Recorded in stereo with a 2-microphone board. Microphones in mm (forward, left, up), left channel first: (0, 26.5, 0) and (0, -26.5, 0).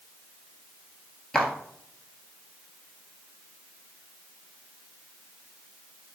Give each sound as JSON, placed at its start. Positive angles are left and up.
{"t": 1.3, "sound": "footsteps", "side_deg": 10, "distance_m": 0.8}